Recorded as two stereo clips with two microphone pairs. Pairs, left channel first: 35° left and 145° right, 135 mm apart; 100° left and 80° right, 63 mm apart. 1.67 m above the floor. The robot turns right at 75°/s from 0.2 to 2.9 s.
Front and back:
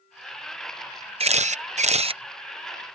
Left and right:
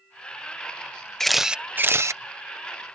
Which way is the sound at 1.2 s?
Straight behind.